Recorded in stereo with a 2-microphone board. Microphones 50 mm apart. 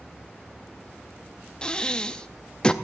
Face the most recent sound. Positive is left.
turn(degrees=20)  # may be behind; listen again after turning